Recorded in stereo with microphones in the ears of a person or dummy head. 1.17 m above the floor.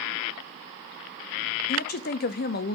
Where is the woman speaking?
60° left (ahead or behind), 0.7 m.